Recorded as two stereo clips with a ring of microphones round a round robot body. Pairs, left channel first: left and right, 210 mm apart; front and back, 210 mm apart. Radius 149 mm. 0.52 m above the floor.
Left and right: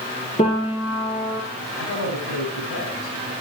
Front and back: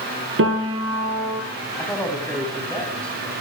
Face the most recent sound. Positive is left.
turn(degrees=85)